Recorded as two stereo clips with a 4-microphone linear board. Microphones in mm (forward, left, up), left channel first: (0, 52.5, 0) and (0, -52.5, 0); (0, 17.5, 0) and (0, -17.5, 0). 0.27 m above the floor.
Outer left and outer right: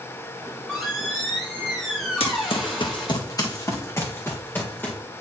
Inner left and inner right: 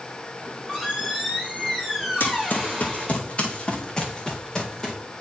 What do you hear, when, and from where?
0.4 s a squeak: centre (ahead or behind), 5 m
2.2 s running footsteps: 70° left (ahead or behind), 1.2 m; by 4.9 s 15° left (ahead or behind), 2 m